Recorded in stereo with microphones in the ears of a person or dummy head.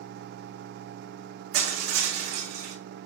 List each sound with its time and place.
1.5 s crushing: 60° right (ahead or behind), 7.5 m